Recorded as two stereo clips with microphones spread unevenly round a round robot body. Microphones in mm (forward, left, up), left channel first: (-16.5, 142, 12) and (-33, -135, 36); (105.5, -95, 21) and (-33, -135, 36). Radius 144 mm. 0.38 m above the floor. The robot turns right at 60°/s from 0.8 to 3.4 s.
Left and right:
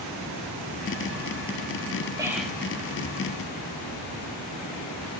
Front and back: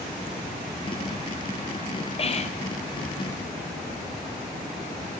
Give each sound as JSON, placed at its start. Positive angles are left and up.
{"t": 2.2, "sound": "whispering", "azimuth_deg": -15, "distance_m": 1.5}